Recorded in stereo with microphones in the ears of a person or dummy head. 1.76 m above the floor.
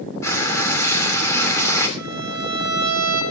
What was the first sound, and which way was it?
Frying, 10° left (ahead or behind).